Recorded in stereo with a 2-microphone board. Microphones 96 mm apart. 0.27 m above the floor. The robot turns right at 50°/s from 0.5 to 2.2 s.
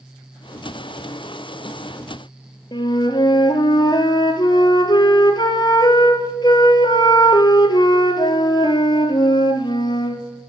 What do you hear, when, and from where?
2.7 s a flute: 50° left (ahead or behind), 1.3 m